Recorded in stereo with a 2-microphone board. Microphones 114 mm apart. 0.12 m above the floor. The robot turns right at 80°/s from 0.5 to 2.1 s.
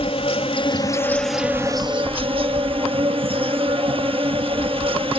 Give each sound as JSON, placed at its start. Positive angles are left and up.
{"t": 0.0, "sound": "an insect", "azimuth_deg": 115, "distance_m": 1.5}